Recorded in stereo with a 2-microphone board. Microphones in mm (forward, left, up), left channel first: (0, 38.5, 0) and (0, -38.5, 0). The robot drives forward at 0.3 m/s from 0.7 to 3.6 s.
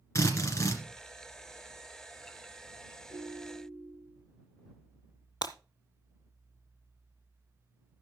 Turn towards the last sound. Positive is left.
turn(degrees=70)  # may be behind; listen again after turning